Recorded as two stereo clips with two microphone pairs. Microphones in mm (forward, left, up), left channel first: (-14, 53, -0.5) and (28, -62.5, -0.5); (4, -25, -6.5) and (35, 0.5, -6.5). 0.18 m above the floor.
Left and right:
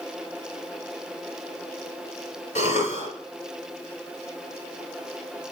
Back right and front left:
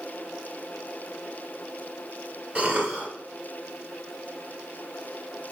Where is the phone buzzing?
I don't hear a phone buzzing.